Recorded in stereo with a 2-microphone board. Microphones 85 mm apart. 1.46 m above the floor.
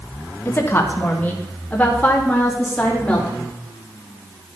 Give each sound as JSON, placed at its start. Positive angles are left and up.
{"t": 0.5, "sound": "a woman speaking", "side_deg": 25, "distance_m": 1.4}